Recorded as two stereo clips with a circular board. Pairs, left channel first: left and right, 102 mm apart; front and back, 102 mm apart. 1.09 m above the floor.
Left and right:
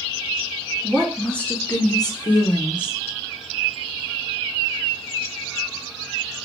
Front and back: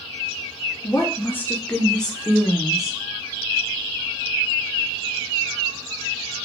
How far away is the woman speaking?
About 0.6 m.